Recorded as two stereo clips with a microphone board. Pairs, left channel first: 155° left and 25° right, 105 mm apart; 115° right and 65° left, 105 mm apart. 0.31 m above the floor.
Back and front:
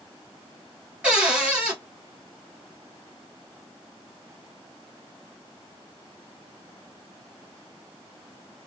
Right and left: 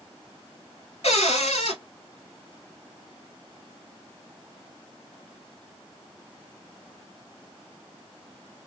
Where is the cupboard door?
100° right, 1.3 m.